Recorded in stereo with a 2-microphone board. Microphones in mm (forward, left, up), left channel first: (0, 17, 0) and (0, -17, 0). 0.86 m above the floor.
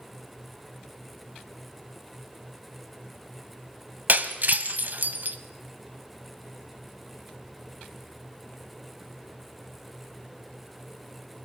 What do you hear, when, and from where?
4.1 s breaking glass: 60° right (ahead or behind), 1.3 m